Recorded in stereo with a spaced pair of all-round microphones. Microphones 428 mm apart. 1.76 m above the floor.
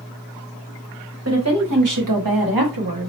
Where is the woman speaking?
35° right (ahead or behind), 1.2 m; by 3.1 s 60° right (ahead or behind), 1.2 m.